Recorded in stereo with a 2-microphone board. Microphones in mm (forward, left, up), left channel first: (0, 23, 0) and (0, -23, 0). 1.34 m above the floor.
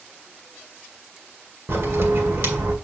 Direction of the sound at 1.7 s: 60° right (ahead or behind).